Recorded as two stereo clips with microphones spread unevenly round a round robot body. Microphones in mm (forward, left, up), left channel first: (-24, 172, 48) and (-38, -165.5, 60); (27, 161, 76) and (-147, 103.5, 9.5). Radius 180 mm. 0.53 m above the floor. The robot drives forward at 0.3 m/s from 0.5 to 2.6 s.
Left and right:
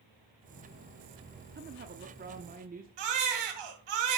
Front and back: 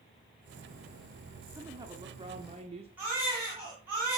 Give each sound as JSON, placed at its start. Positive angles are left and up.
{"t": 1.6, "sound": "a woman speaking", "azimuth_deg": -135, "distance_m": 0.8}
{"t": 3.0, "sound": "a baby crying", "azimuth_deg": -80, "distance_m": 2.0}